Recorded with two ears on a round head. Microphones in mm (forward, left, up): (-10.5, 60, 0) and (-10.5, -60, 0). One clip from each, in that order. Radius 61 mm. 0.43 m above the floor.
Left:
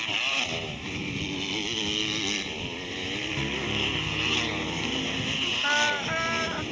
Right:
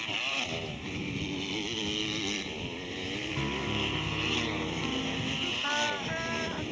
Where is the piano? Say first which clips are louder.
Left 3 dB; 65° right (ahead or behind).